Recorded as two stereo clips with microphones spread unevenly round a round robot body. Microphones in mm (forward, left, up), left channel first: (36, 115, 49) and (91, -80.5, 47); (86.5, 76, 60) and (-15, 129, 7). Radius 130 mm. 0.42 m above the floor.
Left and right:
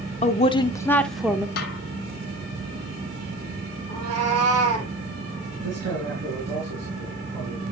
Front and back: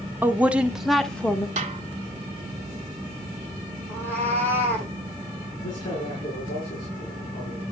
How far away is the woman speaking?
About 1.0 m.